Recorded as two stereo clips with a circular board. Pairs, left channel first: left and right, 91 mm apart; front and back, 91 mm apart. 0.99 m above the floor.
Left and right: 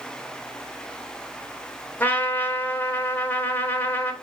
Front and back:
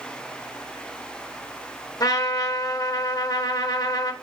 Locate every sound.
2.0 s a trumpet: 30° left, 0.9 m